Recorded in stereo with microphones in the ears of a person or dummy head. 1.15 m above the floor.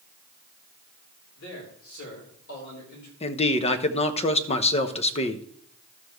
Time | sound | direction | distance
1.4 | a man speaking | 85° left | 4 m
3.2 | a man speaking | 40° left (ahead or behind) | 0.9 m